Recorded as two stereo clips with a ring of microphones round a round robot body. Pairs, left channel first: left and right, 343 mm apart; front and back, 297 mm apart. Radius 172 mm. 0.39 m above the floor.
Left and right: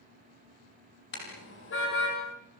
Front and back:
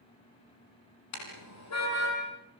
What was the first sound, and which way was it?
A car horn, 30° left.